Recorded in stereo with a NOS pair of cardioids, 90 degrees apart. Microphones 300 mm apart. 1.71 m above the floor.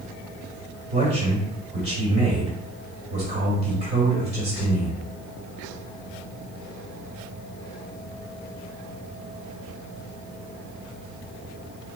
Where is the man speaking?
35° right, 2.5 m.